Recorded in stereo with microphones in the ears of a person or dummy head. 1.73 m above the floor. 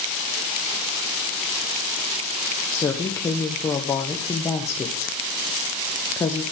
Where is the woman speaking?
15° left (ahead or behind), 1.0 m.